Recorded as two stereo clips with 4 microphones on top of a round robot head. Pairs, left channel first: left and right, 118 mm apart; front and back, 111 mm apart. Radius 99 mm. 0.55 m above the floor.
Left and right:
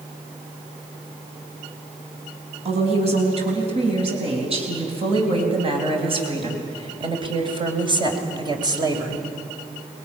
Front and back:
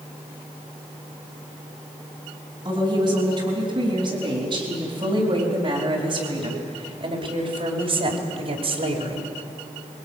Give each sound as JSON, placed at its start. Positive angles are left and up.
{"t": 2.6, "sound": "a woman speaking", "azimuth_deg": -120, "distance_m": 6.0}